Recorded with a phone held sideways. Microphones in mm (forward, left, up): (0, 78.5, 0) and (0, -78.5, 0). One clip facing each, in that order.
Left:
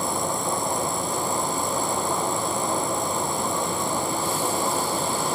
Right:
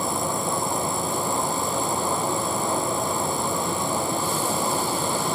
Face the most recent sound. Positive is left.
turn(degrees=-5)  # may be behind; listen again after turning